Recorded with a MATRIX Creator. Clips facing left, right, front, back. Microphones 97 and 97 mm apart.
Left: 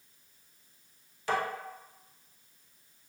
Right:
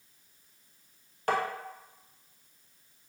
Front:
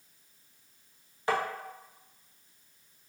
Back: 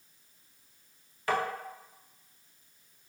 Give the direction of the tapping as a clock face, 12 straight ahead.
2 o'clock.